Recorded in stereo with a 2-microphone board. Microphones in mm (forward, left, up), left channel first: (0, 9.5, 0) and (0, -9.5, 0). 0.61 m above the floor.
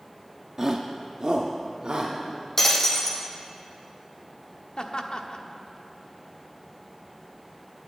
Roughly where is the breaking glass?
Left.